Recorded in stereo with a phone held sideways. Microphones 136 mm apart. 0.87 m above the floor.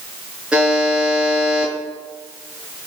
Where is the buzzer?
5° right (ahead or behind), 7 m.